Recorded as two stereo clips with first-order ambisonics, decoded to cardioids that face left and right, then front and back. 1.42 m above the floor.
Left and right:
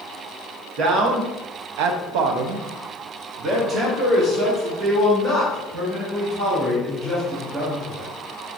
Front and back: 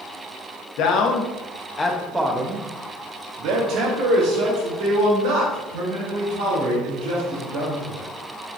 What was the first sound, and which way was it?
A man speaking, 40° right.